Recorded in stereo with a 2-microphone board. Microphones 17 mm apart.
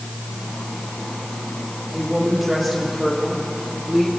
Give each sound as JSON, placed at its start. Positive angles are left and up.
{"t": 1.9, "sound": "a woman speaking", "side_deg": -20, "distance_m": 7.5}